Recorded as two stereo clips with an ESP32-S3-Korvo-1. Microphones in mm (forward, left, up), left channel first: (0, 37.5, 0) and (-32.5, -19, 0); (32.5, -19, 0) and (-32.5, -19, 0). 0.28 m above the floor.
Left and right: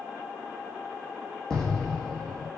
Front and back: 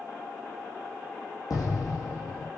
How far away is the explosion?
About 2 m.